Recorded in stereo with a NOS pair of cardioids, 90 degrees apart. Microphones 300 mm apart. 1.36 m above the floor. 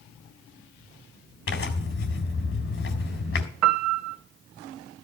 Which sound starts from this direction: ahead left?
Tearing paper, at 1.5 s.